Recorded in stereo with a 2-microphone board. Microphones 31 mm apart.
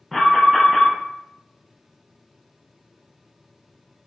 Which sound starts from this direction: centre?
An alarm, at 0.1 s.